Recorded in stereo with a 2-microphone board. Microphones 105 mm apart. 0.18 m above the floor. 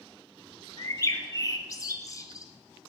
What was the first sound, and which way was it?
A bird, 35° left (ahead or behind).